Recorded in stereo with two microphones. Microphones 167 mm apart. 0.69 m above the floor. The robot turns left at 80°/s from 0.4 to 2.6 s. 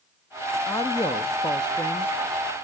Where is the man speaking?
15° left (ahead or behind), 0.5 m; by 2.1 s 10° left (ahead or behind), 0.5 m.